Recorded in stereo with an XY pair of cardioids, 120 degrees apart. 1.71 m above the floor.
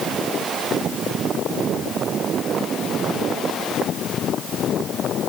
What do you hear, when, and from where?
Only background noise.